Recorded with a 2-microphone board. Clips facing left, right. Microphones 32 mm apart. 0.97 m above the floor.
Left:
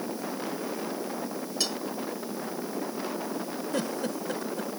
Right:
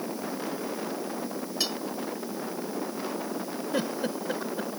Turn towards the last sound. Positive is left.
turn(degrees=-15)  # may be behind; listen again after turning